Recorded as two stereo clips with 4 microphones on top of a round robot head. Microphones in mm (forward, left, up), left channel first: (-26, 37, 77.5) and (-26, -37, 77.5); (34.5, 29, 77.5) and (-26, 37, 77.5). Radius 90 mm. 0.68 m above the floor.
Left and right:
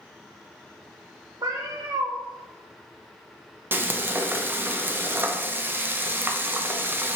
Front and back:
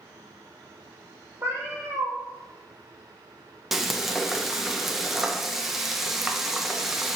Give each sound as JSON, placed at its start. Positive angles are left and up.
{"t": 1.4, "sound": "a cat meowing", "azimuth_deg": -125, "distance_m": 0.7}
{"t": 3.7, "sound": "frying", "azimuth_deg": -110, "distance_m": 0.6}